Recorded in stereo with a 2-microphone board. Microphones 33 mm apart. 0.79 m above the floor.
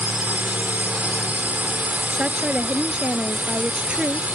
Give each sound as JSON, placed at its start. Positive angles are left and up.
{"t": 0.0, "sound": "a drone", "side_deg": -55}
{"t": 2.1, "sound": "a woman speaking", "side_deg": -35}